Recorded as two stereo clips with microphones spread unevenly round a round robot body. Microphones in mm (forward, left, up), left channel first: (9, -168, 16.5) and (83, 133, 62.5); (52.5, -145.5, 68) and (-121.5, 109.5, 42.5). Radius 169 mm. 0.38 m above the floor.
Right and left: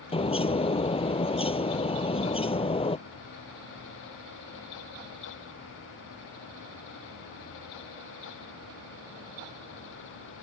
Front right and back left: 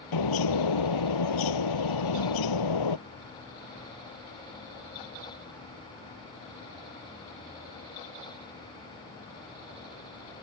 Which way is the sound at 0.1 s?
30° right.